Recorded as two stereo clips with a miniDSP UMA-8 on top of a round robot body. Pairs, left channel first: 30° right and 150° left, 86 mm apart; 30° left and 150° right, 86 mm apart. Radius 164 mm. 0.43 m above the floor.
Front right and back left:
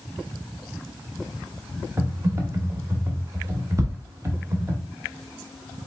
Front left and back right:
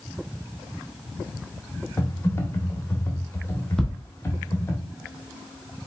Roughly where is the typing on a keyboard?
Left.